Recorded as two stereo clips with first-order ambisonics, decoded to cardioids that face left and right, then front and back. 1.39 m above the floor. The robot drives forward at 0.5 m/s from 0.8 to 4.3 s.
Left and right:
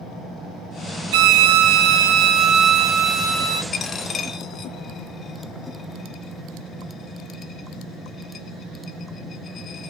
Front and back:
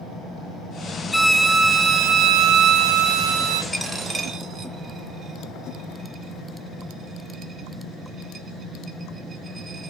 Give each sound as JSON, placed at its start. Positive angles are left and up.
{"t": 1.1, "sound": "a violin", "azimuth_deg": -85, "distance_m": 0.6}
{"t": 3.7, "sound": "a dropped coin", "azimuth_deg": 100, "distance_m": 0.7}